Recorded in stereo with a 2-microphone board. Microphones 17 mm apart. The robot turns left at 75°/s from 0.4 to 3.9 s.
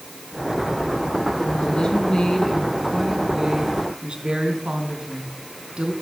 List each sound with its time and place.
1.4 s a woman speaking: 100° left, 3 m; by 5.9 s 85° right, 3 m